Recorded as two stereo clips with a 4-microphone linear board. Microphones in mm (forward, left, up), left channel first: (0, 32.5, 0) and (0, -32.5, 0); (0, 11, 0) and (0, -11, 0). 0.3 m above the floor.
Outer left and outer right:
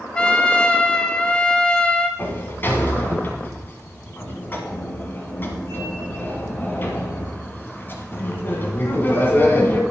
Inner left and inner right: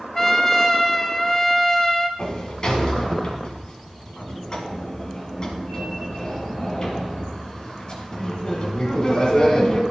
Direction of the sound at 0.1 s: 15° left (ahead or behind).